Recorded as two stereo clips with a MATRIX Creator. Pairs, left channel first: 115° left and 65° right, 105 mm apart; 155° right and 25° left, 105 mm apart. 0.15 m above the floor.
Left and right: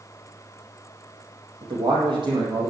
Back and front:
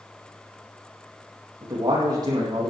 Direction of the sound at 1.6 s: 30° right.